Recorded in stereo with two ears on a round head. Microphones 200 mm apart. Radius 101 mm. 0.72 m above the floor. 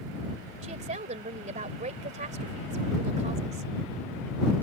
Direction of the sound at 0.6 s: 35° right (ahead or behind).